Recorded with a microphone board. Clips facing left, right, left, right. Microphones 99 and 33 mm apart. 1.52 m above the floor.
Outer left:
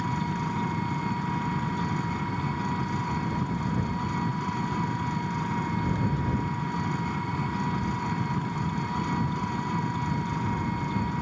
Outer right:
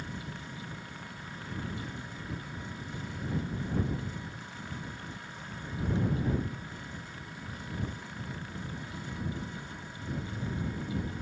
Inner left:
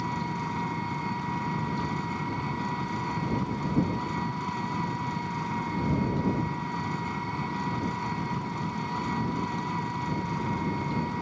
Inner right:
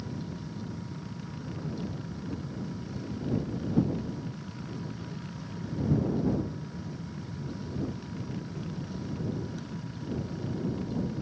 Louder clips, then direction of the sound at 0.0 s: Outer left 13 dB, inner left 8 dB; 80° left.